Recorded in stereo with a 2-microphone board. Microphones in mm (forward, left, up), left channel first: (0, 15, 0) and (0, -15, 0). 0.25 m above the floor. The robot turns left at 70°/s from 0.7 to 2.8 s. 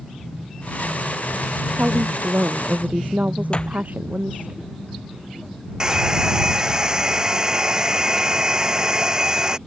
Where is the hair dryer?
25° right (ahead or behind).